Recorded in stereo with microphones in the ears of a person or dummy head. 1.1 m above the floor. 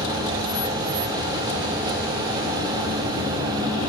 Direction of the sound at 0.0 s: 25° right (ahead or behind).